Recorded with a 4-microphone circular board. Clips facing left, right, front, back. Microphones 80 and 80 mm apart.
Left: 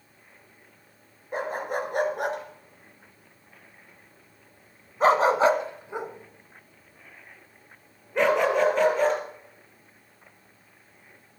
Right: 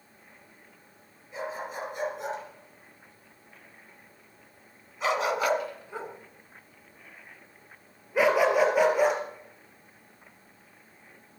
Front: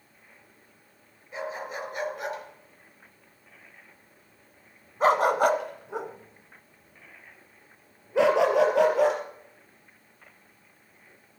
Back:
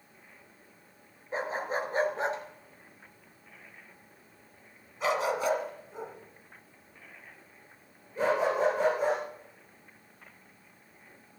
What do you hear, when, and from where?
1.3 s a dog barking: 125° left, 3 m; by 9.2 s 10° right, 4 m